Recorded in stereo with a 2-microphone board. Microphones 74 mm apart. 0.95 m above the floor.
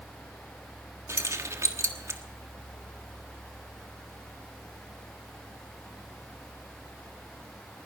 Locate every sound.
1.1 s keys jangling: 40° right (ahead or behind), 1.4 m